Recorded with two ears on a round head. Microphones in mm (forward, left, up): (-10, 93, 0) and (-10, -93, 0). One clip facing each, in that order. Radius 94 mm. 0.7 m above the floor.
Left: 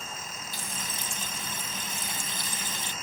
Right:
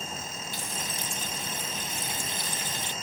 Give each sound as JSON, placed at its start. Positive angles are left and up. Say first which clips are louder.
{"t": 0.5, "sound": "frying", "louder": "right 3 dB", "side_deg": 80, "distance_m": 3.0}